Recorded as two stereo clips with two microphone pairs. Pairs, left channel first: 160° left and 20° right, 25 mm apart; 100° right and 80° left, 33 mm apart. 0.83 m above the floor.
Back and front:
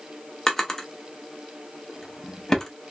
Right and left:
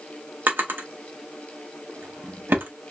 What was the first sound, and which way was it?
A drawer, 90° left.